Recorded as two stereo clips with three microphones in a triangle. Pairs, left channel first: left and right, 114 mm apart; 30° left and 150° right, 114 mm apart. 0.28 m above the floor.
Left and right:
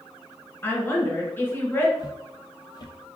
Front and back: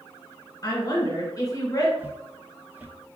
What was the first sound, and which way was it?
A woman speaking, 40° left.